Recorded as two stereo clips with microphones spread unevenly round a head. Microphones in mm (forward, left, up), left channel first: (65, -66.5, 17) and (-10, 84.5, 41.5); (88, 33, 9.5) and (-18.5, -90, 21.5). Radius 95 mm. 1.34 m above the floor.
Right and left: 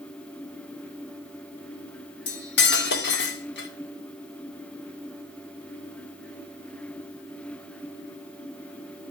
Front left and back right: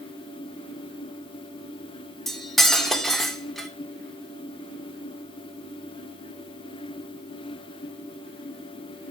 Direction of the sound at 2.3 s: 40° right.